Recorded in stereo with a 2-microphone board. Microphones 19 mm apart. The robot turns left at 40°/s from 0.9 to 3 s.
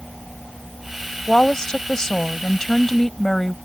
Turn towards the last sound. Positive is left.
turn(degrees=40)